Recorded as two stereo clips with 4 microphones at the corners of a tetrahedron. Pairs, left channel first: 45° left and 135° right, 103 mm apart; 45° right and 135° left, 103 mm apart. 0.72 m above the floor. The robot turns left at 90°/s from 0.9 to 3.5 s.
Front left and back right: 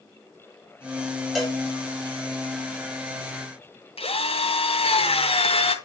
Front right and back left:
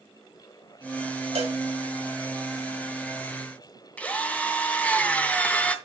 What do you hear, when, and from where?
1.4 s a cowbell: 135° left, 5 m; by 1.6 s 115° left, 5 m
4.0 s a drill: 30° left, 2.5 m